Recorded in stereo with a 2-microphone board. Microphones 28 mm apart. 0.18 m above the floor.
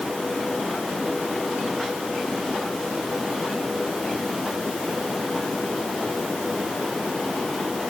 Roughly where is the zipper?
No zipper in this recording.